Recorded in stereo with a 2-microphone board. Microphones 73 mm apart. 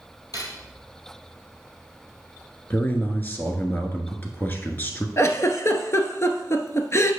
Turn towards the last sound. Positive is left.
turn(degrees=40)  # may be behind; listen again after turning